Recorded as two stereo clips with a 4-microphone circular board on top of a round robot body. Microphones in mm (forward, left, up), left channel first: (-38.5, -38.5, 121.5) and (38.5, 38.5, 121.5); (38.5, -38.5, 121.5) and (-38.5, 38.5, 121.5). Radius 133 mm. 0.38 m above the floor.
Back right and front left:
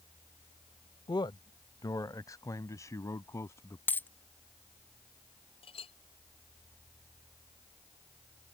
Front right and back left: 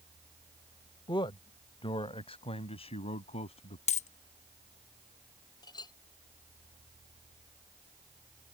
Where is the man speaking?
90° right; by 3.8 s 70° right.